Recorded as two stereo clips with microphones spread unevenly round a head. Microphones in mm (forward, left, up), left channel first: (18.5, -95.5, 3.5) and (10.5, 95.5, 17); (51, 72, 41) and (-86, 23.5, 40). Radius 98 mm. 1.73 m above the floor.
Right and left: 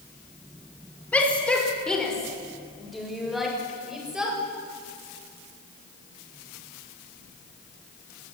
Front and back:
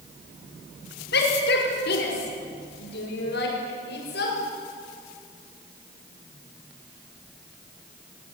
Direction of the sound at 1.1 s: 5° right.